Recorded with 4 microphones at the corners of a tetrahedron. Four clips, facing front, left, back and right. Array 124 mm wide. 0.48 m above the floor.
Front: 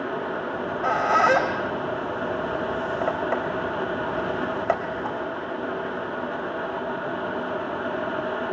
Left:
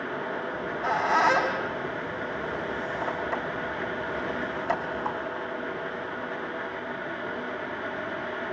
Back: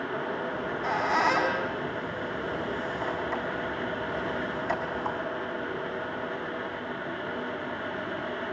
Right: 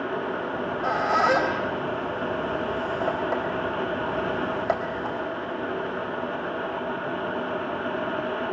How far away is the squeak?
About 4.5 m.